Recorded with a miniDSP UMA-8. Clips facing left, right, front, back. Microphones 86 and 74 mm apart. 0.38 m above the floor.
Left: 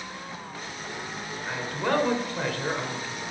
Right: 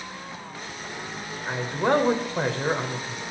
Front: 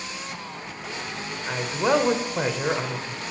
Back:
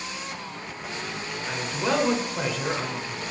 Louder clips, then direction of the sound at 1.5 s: Right 4 dB, front 4 dB; 40° right.